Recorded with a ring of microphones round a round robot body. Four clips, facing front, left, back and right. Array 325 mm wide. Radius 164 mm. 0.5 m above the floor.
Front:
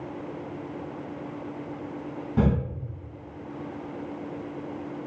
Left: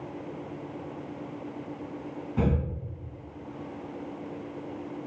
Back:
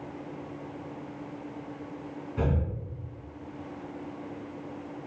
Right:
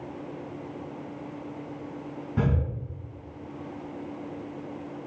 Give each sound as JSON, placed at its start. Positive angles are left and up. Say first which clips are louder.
{"t": 2.4, "sound": "breathing", "louder": "even, front 6 dB", "azimuth_deg": -20, "distance_m": 3.0}